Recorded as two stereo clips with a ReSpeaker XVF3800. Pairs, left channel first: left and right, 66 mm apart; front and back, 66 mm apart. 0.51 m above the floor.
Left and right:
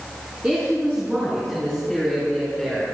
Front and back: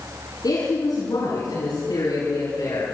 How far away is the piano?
I don't hear a piano.